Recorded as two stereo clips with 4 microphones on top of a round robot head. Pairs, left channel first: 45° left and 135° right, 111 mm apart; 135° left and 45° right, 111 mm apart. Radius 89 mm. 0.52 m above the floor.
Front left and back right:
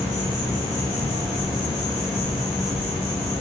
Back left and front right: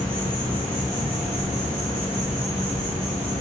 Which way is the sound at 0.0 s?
160° right.